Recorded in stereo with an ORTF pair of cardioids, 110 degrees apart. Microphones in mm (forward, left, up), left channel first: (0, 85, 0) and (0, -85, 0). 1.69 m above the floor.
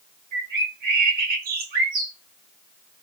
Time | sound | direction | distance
0.3 | a bird | 65° right | 1.6 m